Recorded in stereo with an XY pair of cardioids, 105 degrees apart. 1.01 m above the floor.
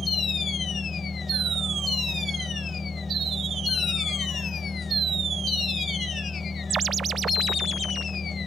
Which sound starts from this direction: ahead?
A machine running, at 0.0 s.